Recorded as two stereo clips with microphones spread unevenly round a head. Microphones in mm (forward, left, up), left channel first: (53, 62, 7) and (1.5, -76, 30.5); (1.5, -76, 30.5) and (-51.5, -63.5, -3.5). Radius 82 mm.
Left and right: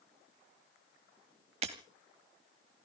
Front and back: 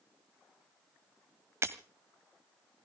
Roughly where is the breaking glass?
Behind right.